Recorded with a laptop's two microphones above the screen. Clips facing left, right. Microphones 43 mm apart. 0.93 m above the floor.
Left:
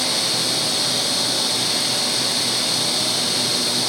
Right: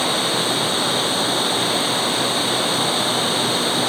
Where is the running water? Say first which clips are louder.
Right 3 dB; 30° right (ahead or behind).